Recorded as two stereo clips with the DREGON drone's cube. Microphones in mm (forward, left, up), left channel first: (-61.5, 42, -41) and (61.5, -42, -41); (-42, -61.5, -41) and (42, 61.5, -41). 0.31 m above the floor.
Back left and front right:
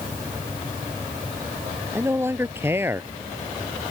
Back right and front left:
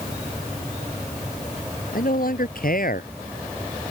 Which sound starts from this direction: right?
A man speaking, at 1.9 s.